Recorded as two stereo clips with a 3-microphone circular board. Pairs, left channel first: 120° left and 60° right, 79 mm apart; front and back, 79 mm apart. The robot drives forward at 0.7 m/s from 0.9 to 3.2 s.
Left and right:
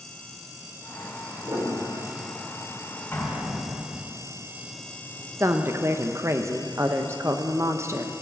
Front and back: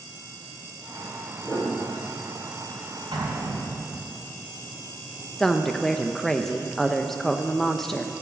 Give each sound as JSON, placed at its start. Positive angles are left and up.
{"t": 1.4, "sound": "a piano", "azimuth_deg": -65, "distance_m": 4.0}
{"t": 3.1, "sound": "an explosion", "azimuth_deg": 180, "distance_m": 3.5}
{"t": 5.4, "sound": "a woman speaking", "azimuth_deg": -80, "distance_m": 0.7}